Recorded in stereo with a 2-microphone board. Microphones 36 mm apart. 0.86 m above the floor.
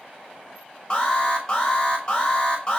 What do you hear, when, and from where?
0.9 s an alarm: 25° left (ahead or behind), 5.5 m